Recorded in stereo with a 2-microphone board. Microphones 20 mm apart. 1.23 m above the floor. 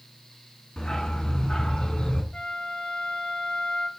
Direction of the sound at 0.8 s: 45° left (ahead or behind).